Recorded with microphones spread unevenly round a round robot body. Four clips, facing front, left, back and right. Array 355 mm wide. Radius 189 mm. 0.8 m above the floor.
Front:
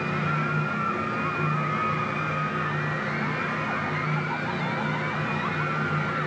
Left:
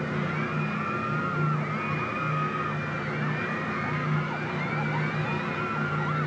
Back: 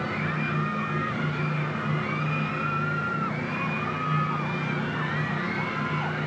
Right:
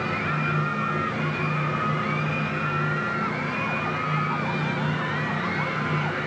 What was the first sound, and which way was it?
Only background noise.